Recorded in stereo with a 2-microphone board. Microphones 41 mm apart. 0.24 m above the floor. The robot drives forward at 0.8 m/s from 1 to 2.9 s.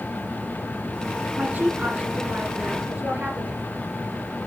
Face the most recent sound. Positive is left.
turn(degrees=-30)  # may be behind; listen again after turning